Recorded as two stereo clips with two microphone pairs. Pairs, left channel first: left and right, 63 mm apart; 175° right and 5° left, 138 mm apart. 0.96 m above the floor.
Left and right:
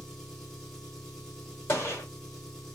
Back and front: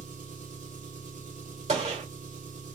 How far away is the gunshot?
About 1.3 m.